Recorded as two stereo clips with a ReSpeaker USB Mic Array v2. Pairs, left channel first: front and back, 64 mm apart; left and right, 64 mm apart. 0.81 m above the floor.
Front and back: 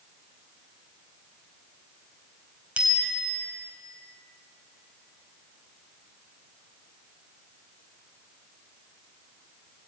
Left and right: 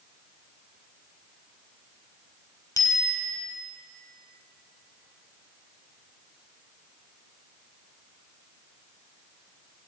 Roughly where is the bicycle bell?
Left.